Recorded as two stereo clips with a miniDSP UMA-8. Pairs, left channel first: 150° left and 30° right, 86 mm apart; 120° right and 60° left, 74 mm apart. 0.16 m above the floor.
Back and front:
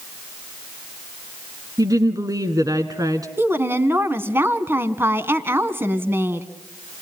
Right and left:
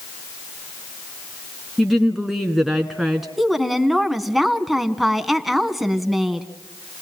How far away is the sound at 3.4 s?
About 1.7 m.